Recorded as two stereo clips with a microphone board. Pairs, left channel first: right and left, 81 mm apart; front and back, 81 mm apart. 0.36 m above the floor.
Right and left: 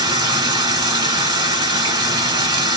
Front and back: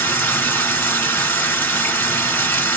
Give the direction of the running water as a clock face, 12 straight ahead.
10 o'clock.